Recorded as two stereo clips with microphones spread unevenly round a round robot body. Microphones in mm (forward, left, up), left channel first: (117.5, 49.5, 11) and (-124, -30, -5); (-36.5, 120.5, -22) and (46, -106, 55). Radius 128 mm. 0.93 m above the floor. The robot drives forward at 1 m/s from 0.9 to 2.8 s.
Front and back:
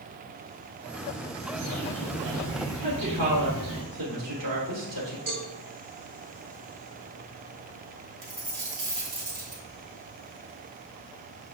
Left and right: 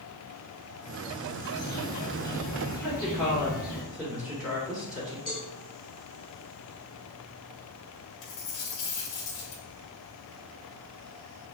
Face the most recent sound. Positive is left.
turn(degrees=145)